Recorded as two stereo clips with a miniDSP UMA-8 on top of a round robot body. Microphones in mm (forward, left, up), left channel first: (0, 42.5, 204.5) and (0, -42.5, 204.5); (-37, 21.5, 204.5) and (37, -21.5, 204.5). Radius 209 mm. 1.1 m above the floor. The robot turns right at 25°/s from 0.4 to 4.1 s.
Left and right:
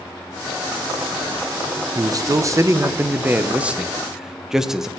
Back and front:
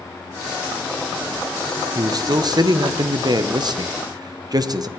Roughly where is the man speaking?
Ahead right.